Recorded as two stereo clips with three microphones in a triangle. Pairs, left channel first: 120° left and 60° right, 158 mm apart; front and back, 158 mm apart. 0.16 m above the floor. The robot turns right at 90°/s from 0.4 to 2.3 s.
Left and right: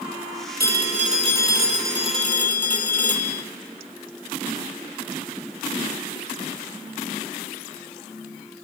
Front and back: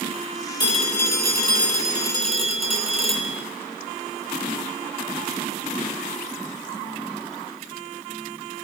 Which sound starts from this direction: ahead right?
A phone ringing, at 0.6 s.